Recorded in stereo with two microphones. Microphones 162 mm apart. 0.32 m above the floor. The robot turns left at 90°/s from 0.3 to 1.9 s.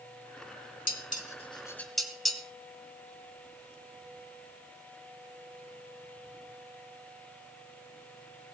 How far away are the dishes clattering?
About 1.5 m.